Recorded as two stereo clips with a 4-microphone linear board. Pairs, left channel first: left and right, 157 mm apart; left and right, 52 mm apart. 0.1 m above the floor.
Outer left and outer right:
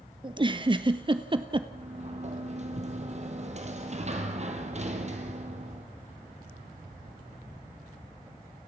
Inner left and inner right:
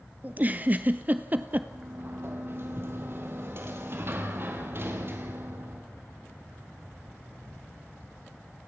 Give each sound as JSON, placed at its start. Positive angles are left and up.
{"t": 0.2, "sound": "a giggle", "side_deg": -30, "distance_m": 1.0}
{"t": 1.7, "sound": "a sliding door", "side_deg": -45, "distance_m": 2.5}